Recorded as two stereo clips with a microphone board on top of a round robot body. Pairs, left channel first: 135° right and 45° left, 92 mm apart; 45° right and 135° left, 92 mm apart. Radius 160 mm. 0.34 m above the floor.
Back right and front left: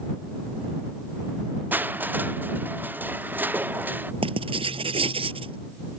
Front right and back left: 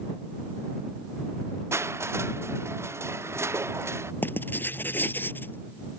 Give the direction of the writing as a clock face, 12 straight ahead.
11 o'clock.